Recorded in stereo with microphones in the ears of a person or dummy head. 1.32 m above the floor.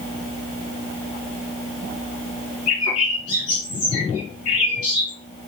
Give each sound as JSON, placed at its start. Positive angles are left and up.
{"t": 2.7, "sound": "a bird", "side_deg": 40, "distance_m": 2.0}